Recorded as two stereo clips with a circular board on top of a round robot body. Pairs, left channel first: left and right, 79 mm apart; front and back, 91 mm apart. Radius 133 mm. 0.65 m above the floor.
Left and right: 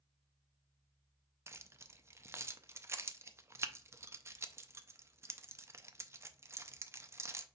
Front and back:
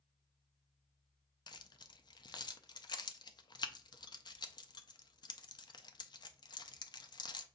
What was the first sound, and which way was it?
Keys jangling, 35° right.